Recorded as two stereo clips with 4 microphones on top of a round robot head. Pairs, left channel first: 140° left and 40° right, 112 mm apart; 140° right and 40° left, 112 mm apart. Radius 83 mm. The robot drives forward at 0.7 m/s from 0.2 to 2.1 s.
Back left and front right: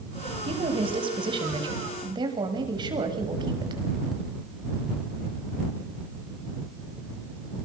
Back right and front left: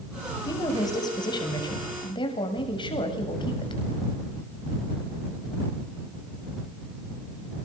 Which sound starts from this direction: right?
A woman speaking, at 0.5 s.